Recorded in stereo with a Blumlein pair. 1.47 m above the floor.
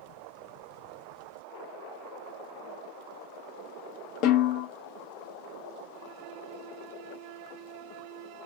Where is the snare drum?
40° left, 0.5 m.